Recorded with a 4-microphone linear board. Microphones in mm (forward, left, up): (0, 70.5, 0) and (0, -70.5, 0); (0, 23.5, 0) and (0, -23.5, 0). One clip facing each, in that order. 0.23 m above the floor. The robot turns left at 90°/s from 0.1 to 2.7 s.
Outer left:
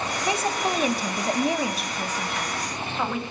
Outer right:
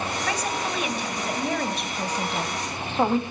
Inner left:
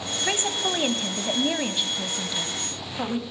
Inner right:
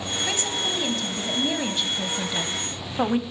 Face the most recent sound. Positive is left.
turn(degrees=-75)